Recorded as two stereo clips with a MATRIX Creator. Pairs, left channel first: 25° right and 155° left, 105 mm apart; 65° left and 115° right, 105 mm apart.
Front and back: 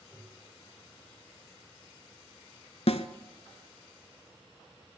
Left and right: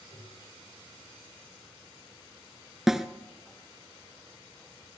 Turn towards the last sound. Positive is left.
turn(degrees=-25)